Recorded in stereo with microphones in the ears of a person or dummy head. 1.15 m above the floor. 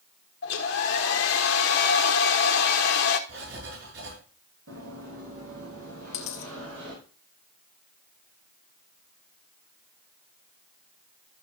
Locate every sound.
0.4 s a hair dryer: 60° left (ahead or behind), 1.3 m
3.3 s writing: 65° right (ahead or behind), 6.5 m
4.7 s running footsteps: 75° right (ahead or behind), 5 m; by 7.0 s 80° right, 5.5 m
6.1 s a dropped coin: 45° left (ahead or behind), 1.5 m